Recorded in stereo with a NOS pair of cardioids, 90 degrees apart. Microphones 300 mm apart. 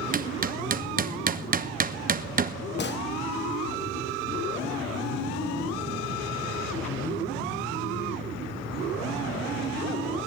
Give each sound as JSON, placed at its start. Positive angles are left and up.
{"t": 0.1, "sound": "hammering", "azimuth_deg": -30, "distance_m": 1.2}
{"t": 2.8, "sound": "a gunshot", "azimuth_deg": 35, "distance_m": 1.2}